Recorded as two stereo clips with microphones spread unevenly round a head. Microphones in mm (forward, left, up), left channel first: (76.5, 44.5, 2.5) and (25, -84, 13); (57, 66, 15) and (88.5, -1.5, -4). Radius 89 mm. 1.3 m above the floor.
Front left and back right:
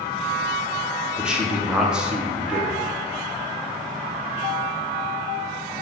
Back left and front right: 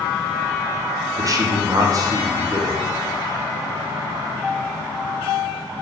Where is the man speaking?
25° right, 0.7 m.